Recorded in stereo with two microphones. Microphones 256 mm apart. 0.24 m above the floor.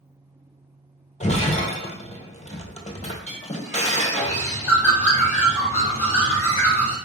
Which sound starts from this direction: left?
Breaking glass, at 1.2 s.